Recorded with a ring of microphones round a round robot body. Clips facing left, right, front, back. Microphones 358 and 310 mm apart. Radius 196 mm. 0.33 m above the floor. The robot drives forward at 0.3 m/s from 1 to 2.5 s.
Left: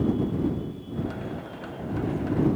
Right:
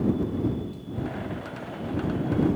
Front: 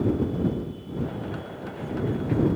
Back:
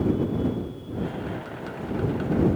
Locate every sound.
Only background noise.